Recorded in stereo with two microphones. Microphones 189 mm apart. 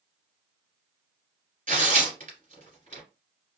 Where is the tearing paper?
45° right (ahead or behind), 1.8 m.